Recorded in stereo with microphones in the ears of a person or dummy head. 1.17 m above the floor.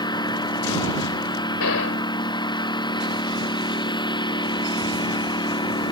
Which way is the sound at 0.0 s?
20° left (ahead or behind).